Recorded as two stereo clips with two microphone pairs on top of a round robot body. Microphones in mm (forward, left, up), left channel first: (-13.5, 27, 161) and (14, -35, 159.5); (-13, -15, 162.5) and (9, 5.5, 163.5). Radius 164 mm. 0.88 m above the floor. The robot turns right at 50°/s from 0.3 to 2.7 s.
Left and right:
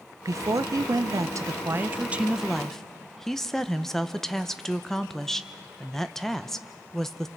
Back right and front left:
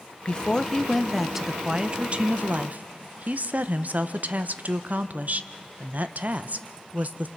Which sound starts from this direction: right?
A woman speaking, at 0.2 s.